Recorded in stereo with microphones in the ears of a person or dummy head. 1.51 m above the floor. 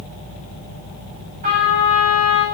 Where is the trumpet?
45° right (ahead or behind), 8 m.